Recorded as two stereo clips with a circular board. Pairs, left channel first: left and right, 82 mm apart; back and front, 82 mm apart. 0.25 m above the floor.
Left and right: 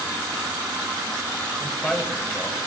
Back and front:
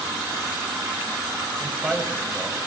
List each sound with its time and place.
1.6 s a man speaking: 25° left, 1.1 m